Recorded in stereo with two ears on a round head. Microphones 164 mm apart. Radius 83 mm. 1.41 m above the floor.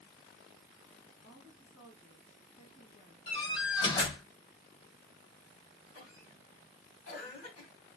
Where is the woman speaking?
80° left, 1.8 m.